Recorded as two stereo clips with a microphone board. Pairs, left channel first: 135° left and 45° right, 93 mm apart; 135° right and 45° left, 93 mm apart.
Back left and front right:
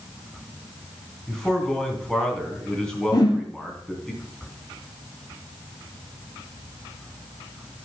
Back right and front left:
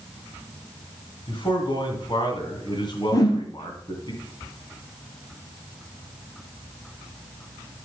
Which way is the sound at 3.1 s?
175° left.